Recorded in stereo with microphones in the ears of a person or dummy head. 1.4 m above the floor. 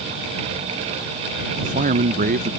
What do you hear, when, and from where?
1.6 s a man speaking: 45° right (ahead or behind)